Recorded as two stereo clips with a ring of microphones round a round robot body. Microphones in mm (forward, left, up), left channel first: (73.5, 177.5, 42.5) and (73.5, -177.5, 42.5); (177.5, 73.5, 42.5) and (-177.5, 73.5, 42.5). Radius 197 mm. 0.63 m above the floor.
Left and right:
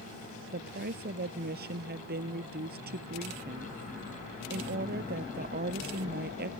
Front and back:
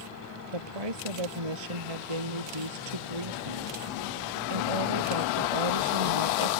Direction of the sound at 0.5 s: 160° right.